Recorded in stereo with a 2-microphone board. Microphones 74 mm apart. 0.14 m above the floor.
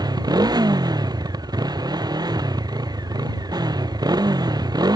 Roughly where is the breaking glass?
I don't hear breaking glass.